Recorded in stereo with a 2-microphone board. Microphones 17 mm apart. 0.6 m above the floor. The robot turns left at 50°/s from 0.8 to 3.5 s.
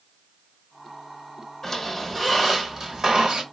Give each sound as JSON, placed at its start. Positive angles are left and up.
{"t": 1.6, "sound": "a squeak", "azimuth_deg": 25, "distance_m": 1.6}